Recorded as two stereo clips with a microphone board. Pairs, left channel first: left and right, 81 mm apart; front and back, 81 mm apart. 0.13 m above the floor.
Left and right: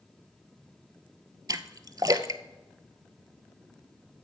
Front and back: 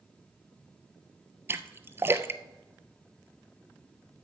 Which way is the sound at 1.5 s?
125° right.